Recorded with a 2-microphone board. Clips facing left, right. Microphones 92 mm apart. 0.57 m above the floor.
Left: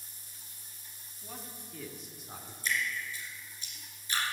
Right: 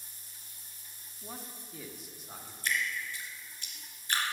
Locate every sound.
1.2 s a man speaking: 25° right (ahead or behind), 0.9 m; by 2.5 s 5° left (ahead or behind), 1.4 m
2.6 s dripping: 50° right (ahead or behind), 2.5 m